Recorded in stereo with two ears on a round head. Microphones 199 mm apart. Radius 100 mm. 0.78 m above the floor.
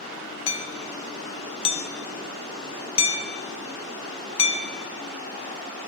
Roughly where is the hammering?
Left.